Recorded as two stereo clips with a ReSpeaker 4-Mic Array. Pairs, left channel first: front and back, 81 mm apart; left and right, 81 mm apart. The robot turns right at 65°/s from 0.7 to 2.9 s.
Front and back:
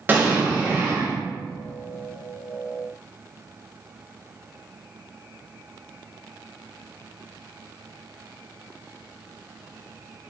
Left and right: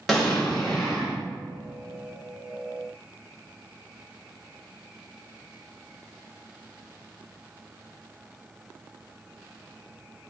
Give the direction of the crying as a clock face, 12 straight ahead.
No crying in this recording.